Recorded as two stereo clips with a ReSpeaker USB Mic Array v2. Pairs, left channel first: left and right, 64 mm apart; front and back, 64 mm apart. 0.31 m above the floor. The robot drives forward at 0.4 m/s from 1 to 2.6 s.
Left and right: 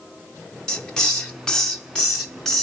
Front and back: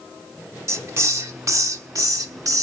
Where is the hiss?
165° left, 0.8 m; by 2.6 s 170° left, 1.3 m.